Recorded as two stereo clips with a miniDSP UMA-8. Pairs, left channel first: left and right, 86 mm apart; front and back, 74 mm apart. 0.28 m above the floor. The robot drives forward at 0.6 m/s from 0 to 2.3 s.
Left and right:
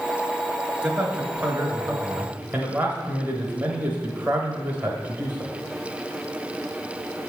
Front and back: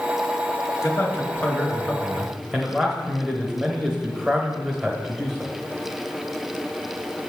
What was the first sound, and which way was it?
A man speaking, 20° right.